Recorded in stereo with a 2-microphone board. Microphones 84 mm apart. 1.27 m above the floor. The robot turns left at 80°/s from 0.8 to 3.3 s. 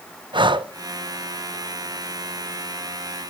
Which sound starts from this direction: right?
Breathing, at 0.3 s.